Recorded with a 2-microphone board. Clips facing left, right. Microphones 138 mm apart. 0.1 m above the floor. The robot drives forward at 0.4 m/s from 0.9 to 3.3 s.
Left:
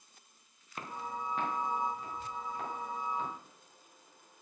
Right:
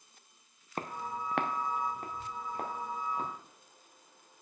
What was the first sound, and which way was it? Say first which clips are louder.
Footsteps: right 2 dB; 45° right (ahead or behind).